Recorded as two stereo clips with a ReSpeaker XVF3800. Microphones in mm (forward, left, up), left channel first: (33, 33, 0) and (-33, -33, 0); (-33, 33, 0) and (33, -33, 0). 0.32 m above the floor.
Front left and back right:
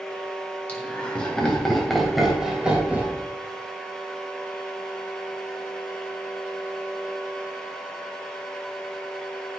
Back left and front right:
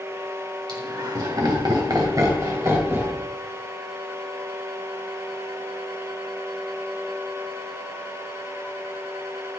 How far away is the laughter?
About 2.5 m.